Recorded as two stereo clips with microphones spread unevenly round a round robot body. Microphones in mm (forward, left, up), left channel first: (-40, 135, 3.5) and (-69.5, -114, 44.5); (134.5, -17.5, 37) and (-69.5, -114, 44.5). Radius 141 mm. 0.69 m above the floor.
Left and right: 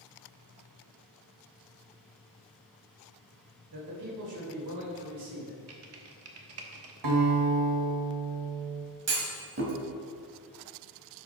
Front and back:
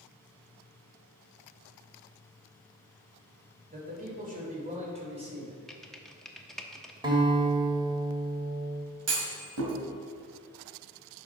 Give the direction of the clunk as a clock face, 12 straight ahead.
5 o'clock.